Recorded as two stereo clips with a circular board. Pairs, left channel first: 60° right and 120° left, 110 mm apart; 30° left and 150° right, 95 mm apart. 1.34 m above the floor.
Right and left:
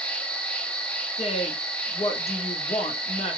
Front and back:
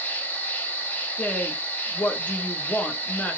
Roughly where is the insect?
Ahead.